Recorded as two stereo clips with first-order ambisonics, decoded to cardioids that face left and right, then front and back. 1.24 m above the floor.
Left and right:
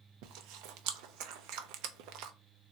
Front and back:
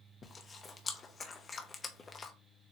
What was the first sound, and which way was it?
Chewing, 70° right.